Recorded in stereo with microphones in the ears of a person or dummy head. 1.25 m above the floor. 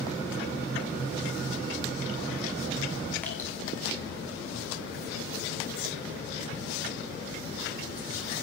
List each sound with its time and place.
3.2 s dripping: 15° left (ahead or behind), 1.9 m